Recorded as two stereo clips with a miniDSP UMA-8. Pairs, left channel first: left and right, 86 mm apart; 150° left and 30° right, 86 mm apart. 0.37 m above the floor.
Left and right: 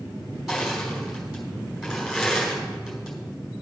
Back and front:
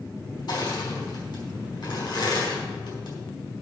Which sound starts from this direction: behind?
Crushing, at 0.5 s.